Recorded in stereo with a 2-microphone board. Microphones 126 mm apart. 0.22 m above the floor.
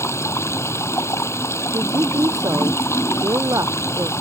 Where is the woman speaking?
25° right (ahead or behind).